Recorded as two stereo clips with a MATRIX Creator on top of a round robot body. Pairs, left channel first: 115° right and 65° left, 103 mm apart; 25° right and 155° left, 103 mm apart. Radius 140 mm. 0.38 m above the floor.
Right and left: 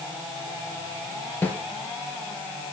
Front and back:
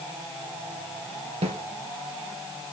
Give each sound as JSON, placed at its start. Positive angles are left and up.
{"t": 1.4, "sound": "a snare drum", "azimuth_deg": 175, "distance_m": 3.0}